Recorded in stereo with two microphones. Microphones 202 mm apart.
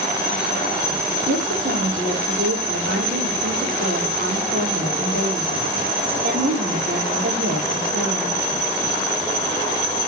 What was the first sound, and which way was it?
A woman speaking, 70° right (ahead or behind).